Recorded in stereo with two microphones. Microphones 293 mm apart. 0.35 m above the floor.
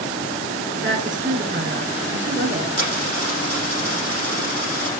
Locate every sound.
0.8 s a woman speaking: 40° right (ahead or behind), 5 m
2.8 s a dropped coin: 55° left (ahead or behind), 6 m